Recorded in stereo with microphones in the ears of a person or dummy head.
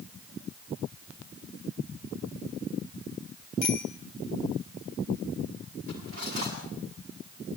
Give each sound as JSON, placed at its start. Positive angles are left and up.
{"t": 3.6, "sound": "a bicycle bell", "side_deg": 45, "distance_m": 3.5}
{"t": 5.9, "sound": "cutlery clinking", "side_deg": -45, "distance_m": 7.5}